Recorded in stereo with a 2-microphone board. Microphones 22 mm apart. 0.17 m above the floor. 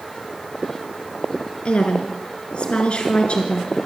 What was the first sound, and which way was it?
A woman speaking, 50° left (ahead or behind).